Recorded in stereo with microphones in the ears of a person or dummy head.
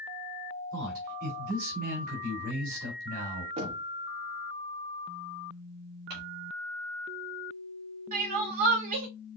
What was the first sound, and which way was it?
A man speaking, 45° right (ahead or behind).